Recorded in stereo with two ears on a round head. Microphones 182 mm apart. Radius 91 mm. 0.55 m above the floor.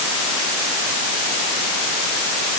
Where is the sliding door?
I don't hear a sliding door.